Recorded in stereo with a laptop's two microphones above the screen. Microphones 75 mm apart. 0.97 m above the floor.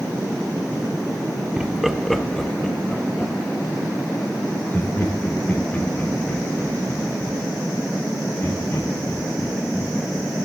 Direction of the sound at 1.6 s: 15° right (ahead or behind).